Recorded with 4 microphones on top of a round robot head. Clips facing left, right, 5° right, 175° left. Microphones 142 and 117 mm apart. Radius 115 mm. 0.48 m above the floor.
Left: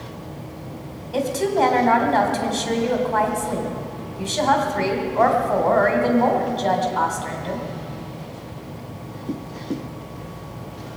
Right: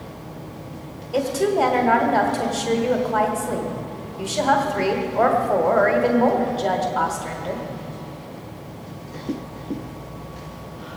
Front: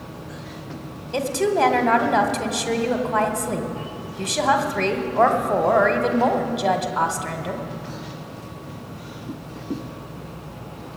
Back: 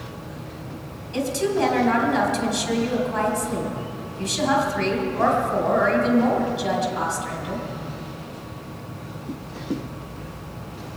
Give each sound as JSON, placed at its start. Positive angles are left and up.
{"t": 1.1, "sound": "a woman speaking", "azimuth_deg": -10, "distance_m": 1.8}